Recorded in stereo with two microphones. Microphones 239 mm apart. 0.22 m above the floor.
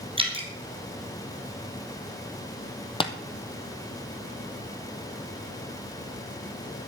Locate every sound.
0.2 s dripping: 25° right (ahead or behind), 3 m
3.0 s tapping: 25° left (ahead or behind), 1.2 m